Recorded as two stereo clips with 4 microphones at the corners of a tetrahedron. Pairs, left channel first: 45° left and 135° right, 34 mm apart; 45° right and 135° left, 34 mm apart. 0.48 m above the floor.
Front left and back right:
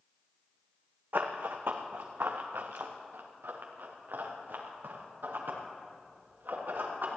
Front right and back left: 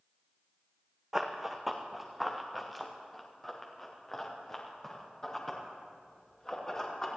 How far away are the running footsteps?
About 1.5 m.